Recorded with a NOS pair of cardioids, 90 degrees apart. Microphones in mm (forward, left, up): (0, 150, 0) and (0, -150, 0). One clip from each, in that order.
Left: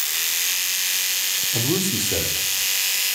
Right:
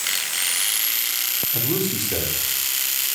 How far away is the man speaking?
About 4.5 m.